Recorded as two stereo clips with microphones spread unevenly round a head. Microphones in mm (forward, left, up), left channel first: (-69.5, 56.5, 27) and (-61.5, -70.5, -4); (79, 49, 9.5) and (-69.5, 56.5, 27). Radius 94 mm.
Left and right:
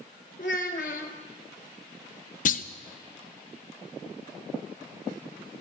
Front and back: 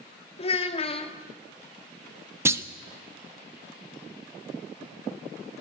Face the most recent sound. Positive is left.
turn(degrees=105)